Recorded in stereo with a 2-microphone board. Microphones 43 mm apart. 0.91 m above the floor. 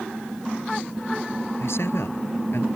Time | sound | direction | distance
1.6 | a man speaking | 75° left (ahead or behind) | ?